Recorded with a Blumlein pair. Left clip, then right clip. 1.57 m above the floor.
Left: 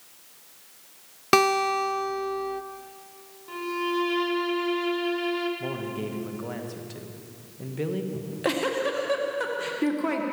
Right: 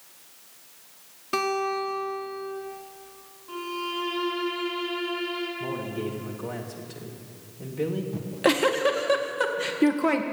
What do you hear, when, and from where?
1.3 s a guitar: 50° left, 0.6 m
3.5 s a violin: 25° left, 2.5 m
5.6 s a man speaking: 10° left, 2 m
8.1 s a giggle: 15° right, 1.4 m